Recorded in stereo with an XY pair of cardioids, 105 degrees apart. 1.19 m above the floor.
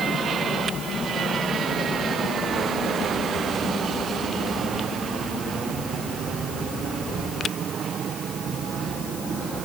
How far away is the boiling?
I don't hear boiling.